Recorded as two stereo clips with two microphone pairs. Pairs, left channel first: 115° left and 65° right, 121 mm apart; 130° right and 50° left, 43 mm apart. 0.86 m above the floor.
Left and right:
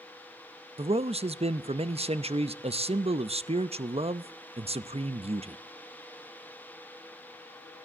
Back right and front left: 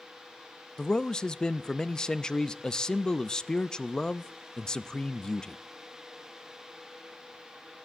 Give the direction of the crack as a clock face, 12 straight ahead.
I don't hear a crack.